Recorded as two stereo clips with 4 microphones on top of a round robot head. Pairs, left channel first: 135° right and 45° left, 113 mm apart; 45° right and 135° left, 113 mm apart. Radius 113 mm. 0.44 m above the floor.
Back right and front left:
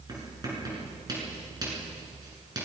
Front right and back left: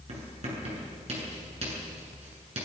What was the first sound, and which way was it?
Writing, 100° left.